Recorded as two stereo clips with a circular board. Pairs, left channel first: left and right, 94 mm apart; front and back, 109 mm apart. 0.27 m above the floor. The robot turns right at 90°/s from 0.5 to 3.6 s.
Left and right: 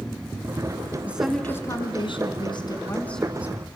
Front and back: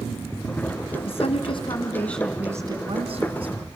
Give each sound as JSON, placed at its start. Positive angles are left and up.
{"t": 1.1, "sound": "a woman speaking", "azimuth_deg": -20, "distance_m": 2.5}